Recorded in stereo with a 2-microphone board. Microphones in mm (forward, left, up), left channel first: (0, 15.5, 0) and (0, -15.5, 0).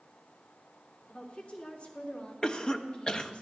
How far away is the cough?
About 0.6 m.